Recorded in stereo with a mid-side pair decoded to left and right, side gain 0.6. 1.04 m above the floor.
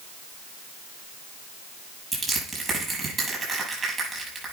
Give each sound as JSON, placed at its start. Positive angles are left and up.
{"t": 2.1, "sound": "crushing", "azimuth_deg": -30, "distance_m": 7.0}